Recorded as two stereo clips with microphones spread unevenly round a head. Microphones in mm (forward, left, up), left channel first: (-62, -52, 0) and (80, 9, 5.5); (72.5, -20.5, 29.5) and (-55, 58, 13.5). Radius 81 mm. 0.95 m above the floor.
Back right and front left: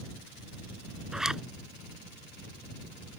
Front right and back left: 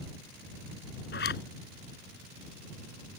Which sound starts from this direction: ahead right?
A zipper, at 1.1 s.